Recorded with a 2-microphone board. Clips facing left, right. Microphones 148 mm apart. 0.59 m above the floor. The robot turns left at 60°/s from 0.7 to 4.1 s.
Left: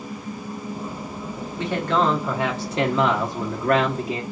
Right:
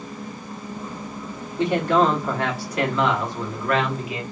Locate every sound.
1.6 s a man speaking: 150° right, 1.0 m; by 4.2 s 60° left, 1.0 m